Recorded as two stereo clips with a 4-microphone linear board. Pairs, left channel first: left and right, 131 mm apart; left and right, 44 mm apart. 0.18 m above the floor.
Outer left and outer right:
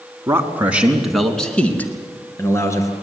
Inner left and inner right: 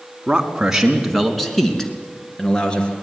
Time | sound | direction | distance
0.3 | a man speaking | 20° right (ahead or behind) | 2 m